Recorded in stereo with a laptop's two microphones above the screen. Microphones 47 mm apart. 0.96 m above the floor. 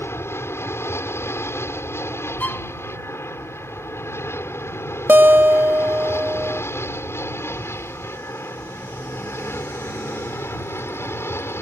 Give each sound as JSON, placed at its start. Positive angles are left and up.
{"t": 0.0, "sound": "an aircraft", "side_deg": 65}
{"t": 2.4, "sound": "a violin", "side_deg": 40}
{"t": 5.1, "sound": "a guitar", "side_deg": -45}